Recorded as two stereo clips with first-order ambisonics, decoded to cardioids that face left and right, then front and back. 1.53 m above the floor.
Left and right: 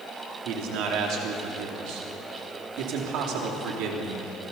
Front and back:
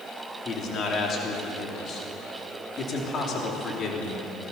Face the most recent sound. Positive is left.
turn(degrees=-60)